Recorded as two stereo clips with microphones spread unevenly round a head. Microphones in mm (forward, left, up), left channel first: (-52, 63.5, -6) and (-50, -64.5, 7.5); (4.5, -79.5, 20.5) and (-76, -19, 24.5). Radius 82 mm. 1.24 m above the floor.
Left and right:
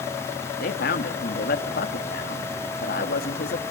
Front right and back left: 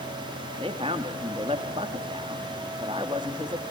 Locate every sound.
0.6 s a man speaking: 80° left, 2.5 m